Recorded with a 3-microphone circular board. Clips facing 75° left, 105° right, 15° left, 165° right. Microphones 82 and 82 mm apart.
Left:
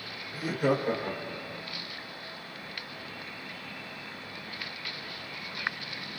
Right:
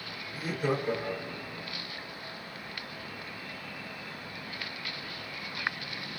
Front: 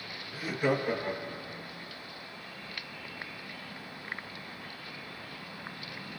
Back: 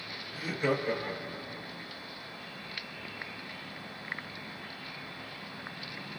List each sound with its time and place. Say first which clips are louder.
0.3 s laughter: left 3 dB, front 1 dB; 95° left, 2.0 m; by 1.6 s 100° left, 1.0 m